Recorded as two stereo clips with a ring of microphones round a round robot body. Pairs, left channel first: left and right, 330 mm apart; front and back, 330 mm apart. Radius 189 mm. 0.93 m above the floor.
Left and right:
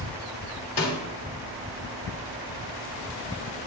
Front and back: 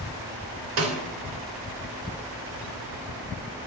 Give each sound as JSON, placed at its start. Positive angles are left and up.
{"t": 0.8, "sound": "a snare drum", "azimuth_deg": 160, "distance_m": 3.0}